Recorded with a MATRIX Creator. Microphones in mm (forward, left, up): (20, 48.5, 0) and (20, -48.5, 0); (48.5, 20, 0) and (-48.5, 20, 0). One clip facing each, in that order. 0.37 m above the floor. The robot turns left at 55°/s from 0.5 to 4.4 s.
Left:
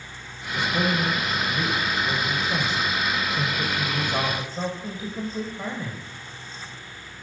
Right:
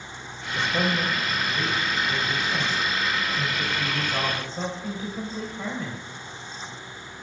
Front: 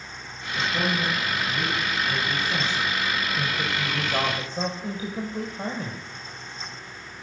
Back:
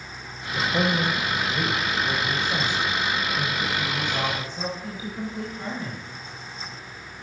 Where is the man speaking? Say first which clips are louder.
Left 1 dB, back 3 dB; 135° right, 1.3 m; by 6.0 s 15° left, 1.3 m.